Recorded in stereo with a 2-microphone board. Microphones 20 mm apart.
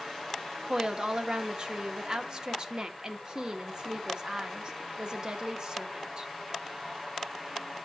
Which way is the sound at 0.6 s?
35° right (ahead or behind).